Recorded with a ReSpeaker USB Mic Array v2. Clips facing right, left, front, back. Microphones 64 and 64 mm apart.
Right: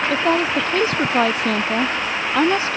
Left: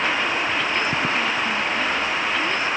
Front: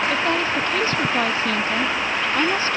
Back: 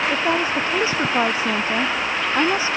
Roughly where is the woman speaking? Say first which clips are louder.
Right 5 dB, back 1 dB; right.